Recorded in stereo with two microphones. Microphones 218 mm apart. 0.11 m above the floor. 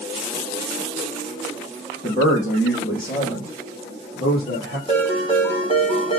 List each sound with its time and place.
2.0 s a man speaking: 35° left (ahead or behind), 5 m; by 4.8 s 45° left (ahead or behind), 7 m
4.9 s a ringtone: 25° left (ahead or behind), 4.5 m